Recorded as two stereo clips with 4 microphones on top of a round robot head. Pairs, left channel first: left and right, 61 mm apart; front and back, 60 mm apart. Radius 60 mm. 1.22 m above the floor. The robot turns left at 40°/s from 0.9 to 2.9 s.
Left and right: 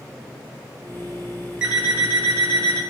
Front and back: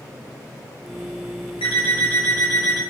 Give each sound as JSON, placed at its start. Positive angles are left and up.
{"t": 1.6, "sound": "an alarm clock", "azimuth_deg": -15, "distance_m": 1.2}